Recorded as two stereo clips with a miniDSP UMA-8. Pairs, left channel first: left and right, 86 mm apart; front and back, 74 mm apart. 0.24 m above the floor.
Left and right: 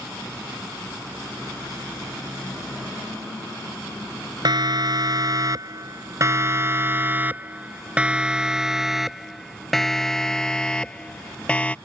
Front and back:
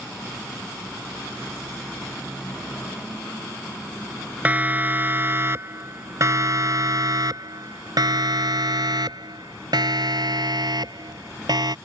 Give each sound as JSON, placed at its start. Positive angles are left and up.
{"t": 4.5, "sound": "a siren", "azimuth_deg": -115}